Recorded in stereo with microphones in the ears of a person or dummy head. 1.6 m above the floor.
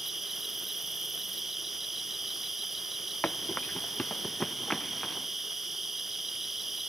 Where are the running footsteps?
5° left (ahead or behind); by 5.3 s centre (ahead or behind).